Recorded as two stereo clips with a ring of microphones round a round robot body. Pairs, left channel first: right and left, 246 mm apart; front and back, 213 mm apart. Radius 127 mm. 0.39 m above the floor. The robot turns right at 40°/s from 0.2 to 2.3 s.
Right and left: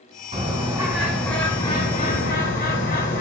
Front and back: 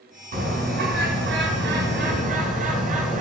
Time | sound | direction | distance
0.3 | a bird | 145° left | 2 m